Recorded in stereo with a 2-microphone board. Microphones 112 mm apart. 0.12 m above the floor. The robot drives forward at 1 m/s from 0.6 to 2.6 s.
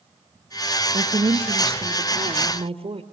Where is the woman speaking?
55° right (ahead or behind), 3 m; by 3.0 s 60° right (ahead or behind), 2.5 m.